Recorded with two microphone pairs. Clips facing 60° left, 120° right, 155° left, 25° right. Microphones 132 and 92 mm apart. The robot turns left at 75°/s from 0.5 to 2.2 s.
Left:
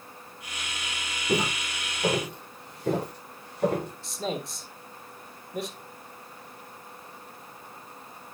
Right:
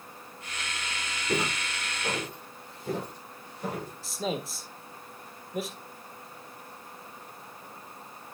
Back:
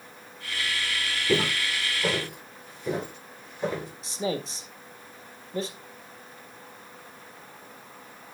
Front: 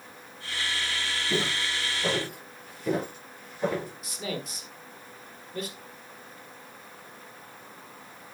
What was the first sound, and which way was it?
Footsteps, 130° left.